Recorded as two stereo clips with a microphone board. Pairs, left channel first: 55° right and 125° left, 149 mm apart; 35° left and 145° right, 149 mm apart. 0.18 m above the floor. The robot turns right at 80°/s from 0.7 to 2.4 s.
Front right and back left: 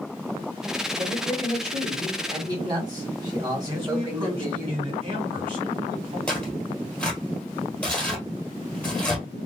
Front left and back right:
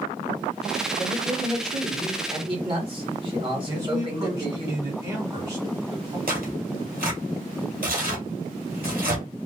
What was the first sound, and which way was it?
A man speaking, 65° left.